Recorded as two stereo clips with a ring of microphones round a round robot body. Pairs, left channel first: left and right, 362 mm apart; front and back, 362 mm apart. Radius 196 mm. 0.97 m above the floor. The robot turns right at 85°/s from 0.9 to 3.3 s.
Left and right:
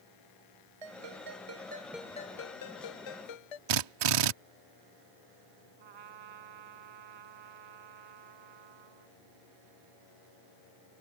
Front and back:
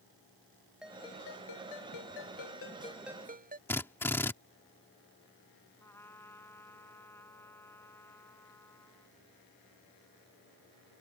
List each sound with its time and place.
0.8 s a ringtone: 90° right; by 3.6 s 110° left
3.7 s a drill: 85° right
5.8 s a trumpet: 85° right